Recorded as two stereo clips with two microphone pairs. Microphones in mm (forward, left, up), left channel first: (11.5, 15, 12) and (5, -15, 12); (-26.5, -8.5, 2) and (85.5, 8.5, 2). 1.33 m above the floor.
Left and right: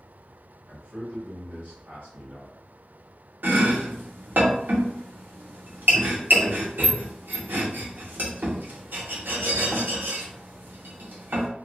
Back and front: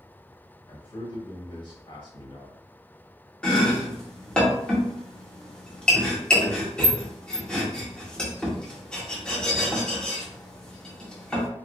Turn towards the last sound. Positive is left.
turn(degrees=-85)